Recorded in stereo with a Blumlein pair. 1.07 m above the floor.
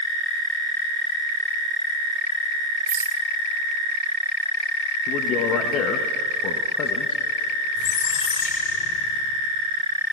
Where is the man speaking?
35° left, 0.9 m.